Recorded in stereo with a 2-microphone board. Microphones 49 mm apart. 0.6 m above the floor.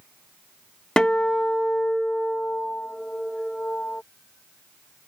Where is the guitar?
15° left (ahead or behind).